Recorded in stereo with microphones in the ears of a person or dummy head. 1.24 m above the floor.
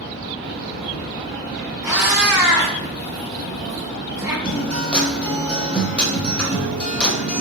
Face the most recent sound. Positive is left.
turn(degrees=5)  # may be behind; listen again after turning